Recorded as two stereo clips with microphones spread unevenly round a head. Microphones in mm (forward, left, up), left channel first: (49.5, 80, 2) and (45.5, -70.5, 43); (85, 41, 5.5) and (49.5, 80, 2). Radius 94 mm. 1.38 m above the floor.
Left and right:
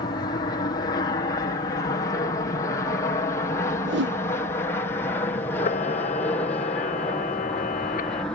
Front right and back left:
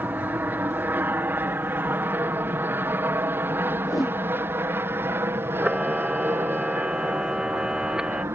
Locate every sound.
0.0 s an aircraft: 105° left; by 8.3 s 160° left
3.9 s a whoosh: 105° right
5.6 s a camera shutter: 55° left